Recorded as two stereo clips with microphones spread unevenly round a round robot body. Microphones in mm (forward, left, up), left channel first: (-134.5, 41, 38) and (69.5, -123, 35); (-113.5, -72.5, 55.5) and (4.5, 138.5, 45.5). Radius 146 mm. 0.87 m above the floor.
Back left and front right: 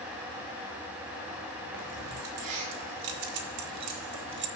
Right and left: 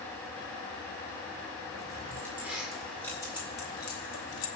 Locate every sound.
1.7 s keys jangling: 15° right, 2.5 m; by 4.5 s 90° right, 1.1 m